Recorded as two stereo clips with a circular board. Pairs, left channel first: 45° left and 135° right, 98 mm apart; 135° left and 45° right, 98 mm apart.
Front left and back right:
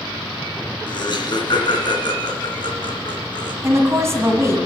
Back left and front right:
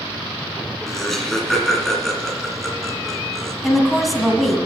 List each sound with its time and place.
0.9 s laughter: 50° left, 2 m
3.6 s a woman speaking: 135° right, 1.5 m